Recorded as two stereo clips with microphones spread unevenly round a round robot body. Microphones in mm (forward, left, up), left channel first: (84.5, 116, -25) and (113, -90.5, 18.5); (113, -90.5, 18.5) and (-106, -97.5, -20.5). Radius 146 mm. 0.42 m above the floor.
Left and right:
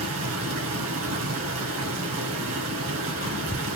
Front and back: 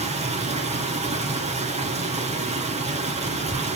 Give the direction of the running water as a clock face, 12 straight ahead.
4 o'clock.